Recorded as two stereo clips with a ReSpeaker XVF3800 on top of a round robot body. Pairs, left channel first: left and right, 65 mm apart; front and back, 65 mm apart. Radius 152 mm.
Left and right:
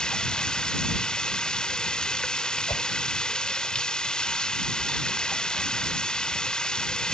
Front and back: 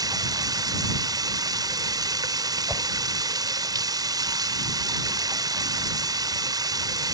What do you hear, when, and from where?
0.0 s running water: 170° left
2.7 s a whoosh: 120° left